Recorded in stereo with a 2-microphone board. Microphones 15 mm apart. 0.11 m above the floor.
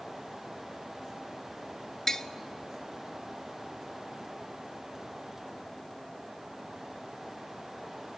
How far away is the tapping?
About 0.6 m.